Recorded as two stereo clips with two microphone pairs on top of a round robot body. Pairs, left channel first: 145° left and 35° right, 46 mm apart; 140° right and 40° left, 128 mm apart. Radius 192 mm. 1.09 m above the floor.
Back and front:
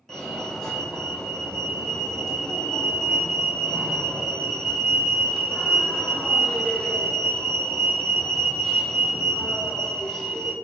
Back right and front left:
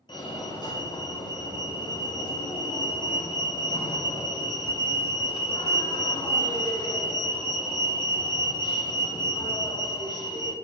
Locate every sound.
0.1 s a fire alarm: 135° right, 1.2 m